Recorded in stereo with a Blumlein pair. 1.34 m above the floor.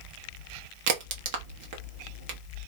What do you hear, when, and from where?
0.9 s a crack: 50° right, 0.7 m